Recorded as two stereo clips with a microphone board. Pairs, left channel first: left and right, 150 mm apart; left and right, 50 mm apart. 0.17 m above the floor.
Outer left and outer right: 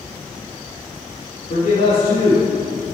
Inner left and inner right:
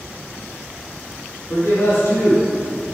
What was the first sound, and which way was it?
A man speaking, 50° left (ahead or behind).